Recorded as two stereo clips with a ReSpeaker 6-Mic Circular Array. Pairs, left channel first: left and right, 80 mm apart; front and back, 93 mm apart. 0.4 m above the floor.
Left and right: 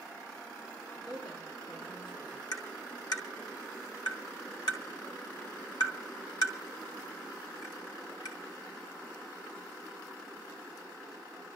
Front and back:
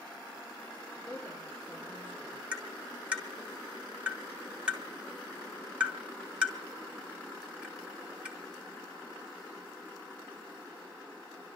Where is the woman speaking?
110° left, 5.5 m.